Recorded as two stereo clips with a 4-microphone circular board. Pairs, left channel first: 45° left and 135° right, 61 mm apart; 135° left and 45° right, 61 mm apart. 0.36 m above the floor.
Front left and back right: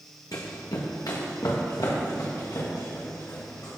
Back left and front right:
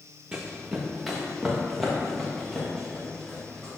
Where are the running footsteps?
30° left, 1.3 m; by 3.7 s 55° left, 4.5 m.